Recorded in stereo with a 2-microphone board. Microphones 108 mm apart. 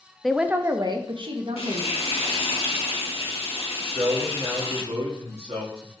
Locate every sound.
0.2 s a woman speaking: centre (ahead or behind), 0.5 m; by 1.9 s 70° right (ahead or behind), 1.2 m
1.6 s frying: 70° left (ahead or behind), 1.3 m
3.8 s a man speaking: 70° right (ahead or behind), 1.7 m